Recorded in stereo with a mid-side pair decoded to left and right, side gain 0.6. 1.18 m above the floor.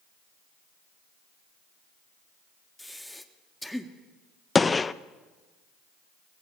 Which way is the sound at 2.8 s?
5° left.